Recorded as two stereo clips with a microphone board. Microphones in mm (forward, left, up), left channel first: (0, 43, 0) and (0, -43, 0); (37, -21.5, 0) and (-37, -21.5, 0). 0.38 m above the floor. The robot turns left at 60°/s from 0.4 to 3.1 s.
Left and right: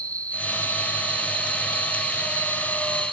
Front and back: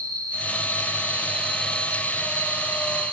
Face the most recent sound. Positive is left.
turn(degrees=0)